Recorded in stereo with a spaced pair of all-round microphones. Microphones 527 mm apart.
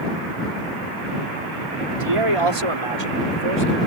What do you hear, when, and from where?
1.9 s a man speaking: 70° right (ahead or behind); by 3.8 s 85° right